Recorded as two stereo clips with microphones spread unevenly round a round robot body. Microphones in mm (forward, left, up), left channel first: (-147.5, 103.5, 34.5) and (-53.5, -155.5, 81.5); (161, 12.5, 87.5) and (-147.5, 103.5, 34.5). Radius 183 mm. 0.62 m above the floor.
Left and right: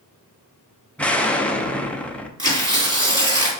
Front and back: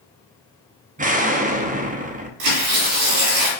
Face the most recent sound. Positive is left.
turn(degrees=-145)